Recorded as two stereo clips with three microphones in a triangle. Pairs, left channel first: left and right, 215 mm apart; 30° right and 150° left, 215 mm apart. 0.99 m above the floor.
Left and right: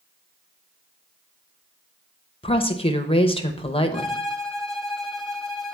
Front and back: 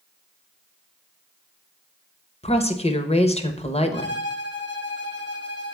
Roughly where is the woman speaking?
Ahead left.